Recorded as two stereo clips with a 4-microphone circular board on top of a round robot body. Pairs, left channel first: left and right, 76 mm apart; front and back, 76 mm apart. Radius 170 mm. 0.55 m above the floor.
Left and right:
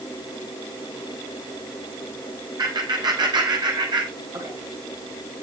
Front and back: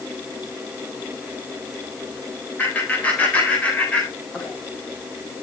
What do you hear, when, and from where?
2.6 s laughter: 70° right, 7 m; by 4.5 s 75° right, 6.5 m